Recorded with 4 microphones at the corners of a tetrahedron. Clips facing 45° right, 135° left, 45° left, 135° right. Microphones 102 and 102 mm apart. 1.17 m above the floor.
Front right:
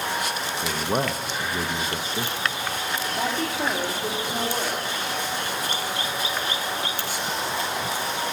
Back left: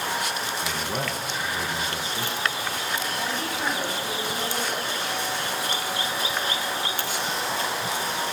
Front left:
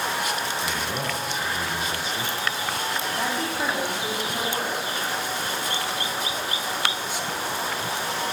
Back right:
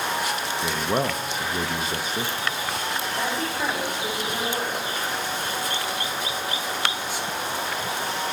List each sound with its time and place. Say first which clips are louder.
0.6 s a man speaking: front right 8 dB, back right 4 dB; 95° right, 0.6 m
3.1 s a woman speaking: front right 3 dB, even; 25° right, 2 m